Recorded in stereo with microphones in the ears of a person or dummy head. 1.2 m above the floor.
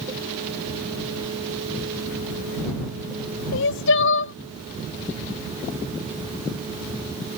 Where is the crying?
60° left (ahead or behind).